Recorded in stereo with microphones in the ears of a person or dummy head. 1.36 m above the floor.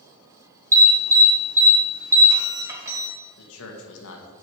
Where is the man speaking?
75° left (ahead or behind), 1.8 m.